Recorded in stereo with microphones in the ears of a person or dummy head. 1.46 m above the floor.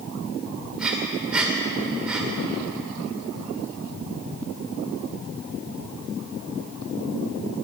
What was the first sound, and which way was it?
Breathing, 5° right (ahead or behind).